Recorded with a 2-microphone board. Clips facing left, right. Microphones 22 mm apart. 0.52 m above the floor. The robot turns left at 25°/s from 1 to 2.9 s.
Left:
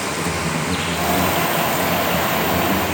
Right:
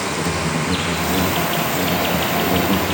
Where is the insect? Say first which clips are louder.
Right 1 dB; 15° right, 4.5 m; by 2.9 s 60° right, 4.5 m.